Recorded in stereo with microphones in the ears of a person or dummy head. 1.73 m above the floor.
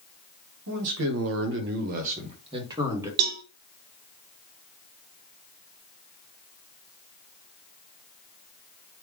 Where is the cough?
I don't hear a cough.